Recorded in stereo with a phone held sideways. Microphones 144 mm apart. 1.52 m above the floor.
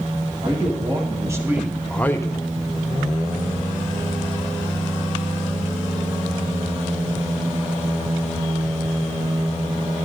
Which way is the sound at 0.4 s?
40° right (ahead or behind).